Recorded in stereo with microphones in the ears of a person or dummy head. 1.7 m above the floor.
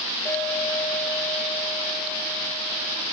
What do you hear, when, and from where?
0.2 s a clink: 10° left (ahead or behind), 5 m